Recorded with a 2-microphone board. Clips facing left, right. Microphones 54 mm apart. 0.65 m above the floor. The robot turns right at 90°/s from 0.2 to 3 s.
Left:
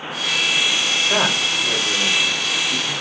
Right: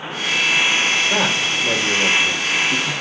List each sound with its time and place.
1.1 s a man speaking: 150° left, 1.6 m; by 2.9 s 45° right, 1.6 m